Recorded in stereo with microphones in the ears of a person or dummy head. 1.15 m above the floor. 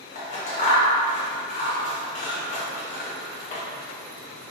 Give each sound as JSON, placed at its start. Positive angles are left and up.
{"t": 0.1, "sound": "scissors", "side_deg": 35, "distance_m": 1.0}